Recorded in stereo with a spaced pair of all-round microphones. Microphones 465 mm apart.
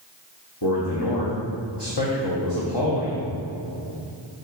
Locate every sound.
0.6 s a man speaking: 55° left (ahead or behind), 1.2 m